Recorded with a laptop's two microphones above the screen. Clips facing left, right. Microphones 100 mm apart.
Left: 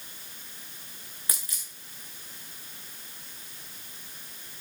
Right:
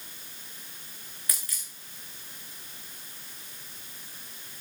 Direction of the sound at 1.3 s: 25° left (ahead or behind).